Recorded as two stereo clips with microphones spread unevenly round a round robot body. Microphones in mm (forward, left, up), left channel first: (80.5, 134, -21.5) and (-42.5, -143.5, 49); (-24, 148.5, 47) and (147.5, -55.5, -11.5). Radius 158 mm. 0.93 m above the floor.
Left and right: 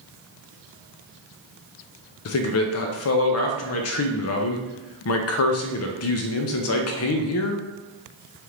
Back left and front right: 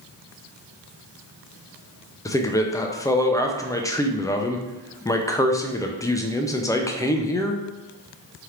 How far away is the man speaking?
About 0.5 m.